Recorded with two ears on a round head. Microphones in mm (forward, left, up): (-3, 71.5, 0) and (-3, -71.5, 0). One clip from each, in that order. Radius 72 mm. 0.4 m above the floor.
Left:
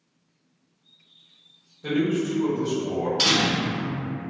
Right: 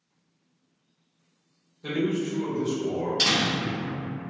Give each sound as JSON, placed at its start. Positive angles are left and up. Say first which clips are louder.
{"t": 1.8, "sound": "a man speaking", "louder": "left 3 dB", "side_deg": 0, "distance_m": 0.8}
{"t": 3.2, "sound": "a door slam", "louder": "left 2 dB", "side_deg": 10, "distance_m": 1.0}